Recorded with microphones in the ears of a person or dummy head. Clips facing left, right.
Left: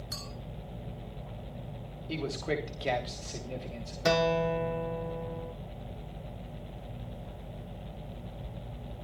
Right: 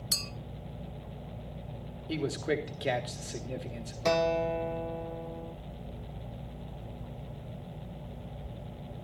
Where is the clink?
40° right (ahead or behind), 1.2 m.